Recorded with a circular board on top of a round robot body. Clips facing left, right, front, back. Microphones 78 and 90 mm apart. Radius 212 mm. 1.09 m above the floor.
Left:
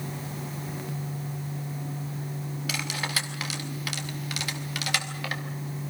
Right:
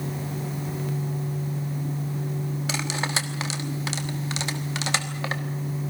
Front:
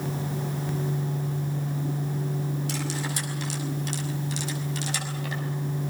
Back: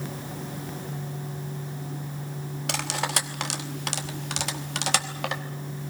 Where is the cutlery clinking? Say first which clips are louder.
Right 2 dB, back 2 dB; 155° right, 1.2 m.